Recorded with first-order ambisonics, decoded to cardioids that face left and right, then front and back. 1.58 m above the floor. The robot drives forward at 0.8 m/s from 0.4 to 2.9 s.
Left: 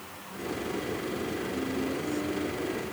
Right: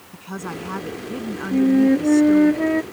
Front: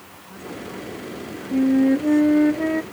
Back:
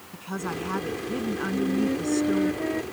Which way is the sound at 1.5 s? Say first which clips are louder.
Right 14 dB, front 11 dB; 55° right.